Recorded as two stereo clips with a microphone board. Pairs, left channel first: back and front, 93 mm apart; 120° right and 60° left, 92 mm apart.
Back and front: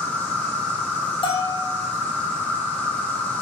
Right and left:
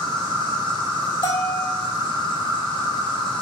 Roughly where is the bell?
Behind right.